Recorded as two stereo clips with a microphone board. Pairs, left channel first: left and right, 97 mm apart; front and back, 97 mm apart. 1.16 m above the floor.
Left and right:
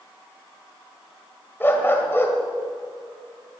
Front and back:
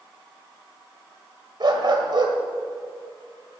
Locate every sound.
1.6 s a dog barking: 155° left, 1.8 m